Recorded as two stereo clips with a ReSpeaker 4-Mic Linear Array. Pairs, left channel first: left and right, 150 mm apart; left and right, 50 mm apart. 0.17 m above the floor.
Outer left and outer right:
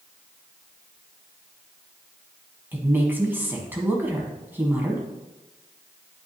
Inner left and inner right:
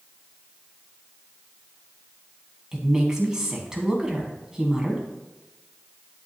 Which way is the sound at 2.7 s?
15° right (ahead or behind).